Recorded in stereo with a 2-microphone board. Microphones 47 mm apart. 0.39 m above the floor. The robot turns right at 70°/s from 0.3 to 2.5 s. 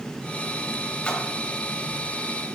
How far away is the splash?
About 1.9 m.